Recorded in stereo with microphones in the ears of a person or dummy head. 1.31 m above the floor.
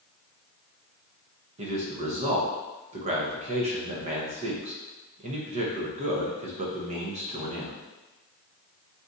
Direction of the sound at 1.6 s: 30° right (ahead or behind).